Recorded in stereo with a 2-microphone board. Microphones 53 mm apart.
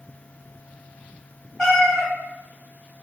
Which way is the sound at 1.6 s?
15° left (ahead or behind).